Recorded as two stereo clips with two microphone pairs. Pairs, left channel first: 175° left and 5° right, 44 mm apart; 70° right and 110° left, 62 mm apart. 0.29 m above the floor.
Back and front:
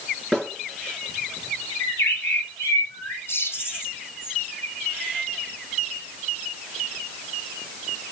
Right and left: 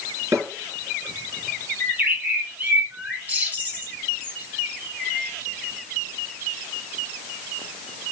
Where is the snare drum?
85° left, 4 m.